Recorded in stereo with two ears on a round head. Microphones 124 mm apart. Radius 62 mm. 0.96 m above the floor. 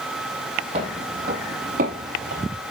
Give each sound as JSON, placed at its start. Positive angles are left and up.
{"t": 0.7, "sound": "footsteps", "side_deg": -50, "distance_m": 2.5}